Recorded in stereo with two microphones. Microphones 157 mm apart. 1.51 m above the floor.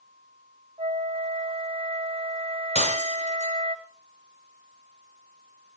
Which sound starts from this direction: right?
A flute, at 0.8 s.